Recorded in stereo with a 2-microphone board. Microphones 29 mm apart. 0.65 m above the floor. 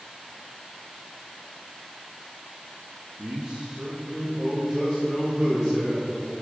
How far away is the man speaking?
About 1.2 m.